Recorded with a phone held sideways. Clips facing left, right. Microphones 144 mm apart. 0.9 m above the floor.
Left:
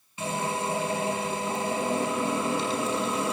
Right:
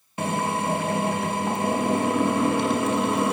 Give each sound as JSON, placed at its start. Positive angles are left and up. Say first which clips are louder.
{"t": 0.2, "sound": "a drill", "louder": "right 4 dB", "side_deg": -55, "distance_m": 6.5}